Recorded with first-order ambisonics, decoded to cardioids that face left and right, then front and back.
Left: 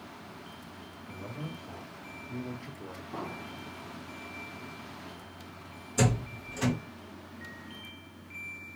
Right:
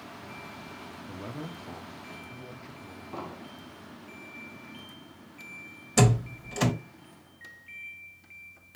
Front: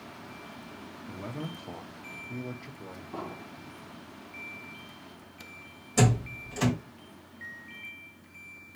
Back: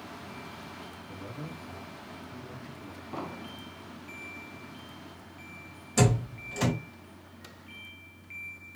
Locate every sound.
1.1 s a man speaking: 50° right, 0.7 m; by 3.0 s 45° left, 0.9 m
3.1 s an explosion: 155° right, 0.7 m
6.0 s a door slam: 100° right, 1.4 m